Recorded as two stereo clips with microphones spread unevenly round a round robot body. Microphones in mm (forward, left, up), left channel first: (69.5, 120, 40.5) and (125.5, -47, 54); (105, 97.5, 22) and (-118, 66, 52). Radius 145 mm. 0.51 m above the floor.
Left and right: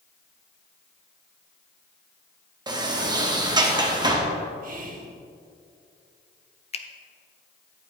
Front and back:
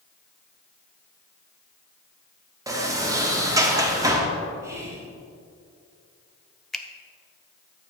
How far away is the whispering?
About 1.6 m.